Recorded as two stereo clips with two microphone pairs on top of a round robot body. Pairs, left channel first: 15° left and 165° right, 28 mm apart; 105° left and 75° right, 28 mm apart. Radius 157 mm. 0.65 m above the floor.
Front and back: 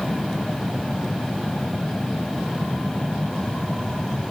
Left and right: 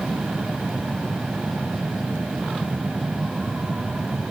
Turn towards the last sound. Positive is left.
No sound to turn to.